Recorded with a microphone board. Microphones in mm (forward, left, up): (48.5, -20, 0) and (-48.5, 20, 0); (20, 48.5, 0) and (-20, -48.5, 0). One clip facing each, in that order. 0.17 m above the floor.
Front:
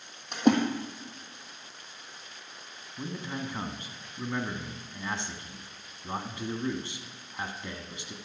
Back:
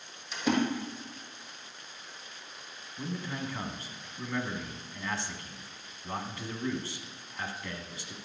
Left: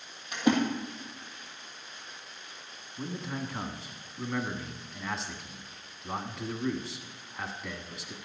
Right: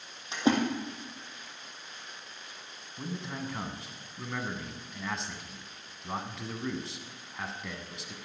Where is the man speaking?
15° right, 1.1 m.